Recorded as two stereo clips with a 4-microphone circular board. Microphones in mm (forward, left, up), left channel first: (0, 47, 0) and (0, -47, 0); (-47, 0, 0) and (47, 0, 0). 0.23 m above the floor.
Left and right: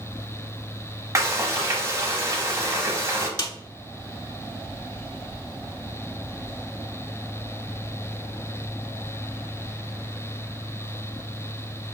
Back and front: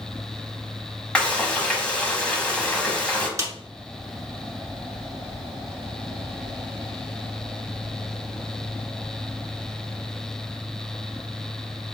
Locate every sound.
1.1 s frying: 110° right, 0.8 m
3.4 s a snare drum: 55° left, 0.8 m